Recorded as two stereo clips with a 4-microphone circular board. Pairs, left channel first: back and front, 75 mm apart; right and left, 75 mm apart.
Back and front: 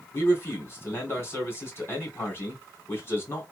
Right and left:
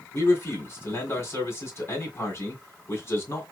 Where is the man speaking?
135° right, 2.0 m.